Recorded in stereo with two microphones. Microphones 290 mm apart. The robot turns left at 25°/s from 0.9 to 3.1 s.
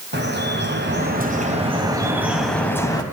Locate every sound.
0.1 s dripping: 140° right, 4 m; by 3.0 s 165° left, 4 m